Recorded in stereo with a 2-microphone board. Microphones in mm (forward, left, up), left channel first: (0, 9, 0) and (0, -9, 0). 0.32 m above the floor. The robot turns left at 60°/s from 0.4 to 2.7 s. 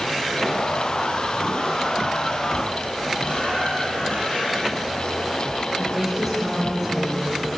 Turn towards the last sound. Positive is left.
turn(degrees=0)  # may be behind; listen again after turning